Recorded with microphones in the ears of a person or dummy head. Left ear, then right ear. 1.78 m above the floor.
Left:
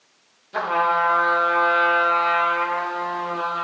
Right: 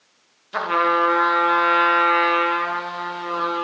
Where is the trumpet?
40° right (ahead or behind), 1.6 m.